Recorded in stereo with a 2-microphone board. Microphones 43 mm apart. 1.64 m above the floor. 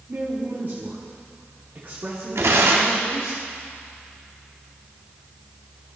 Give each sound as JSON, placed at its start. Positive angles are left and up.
{"t": 0.1, "sound": "a woman speaking", "side_deg": -50, "distance_m": 1.6}
{"t": 2.4, "sound": "tearing paper", "side_deg": -80, "distance_m": 1.1}